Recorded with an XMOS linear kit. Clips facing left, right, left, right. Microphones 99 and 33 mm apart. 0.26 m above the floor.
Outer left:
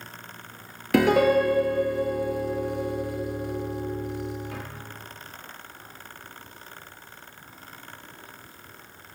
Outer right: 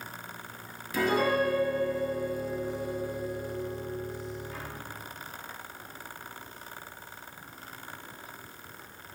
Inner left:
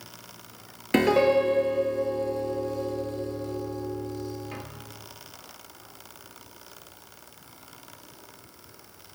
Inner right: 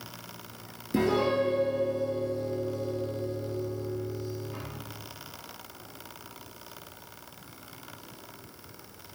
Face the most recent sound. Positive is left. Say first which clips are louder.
# outer left 7 dB, inner left 5 dB
turn(degrees=75)  # may be behind; listen again after turning